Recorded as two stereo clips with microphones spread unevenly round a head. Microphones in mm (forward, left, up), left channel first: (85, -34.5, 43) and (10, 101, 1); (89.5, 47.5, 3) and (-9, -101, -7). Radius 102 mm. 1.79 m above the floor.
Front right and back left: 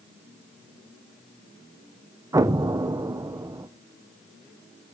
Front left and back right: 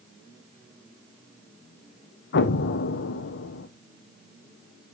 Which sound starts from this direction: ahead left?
An explosion, at 2.3 s.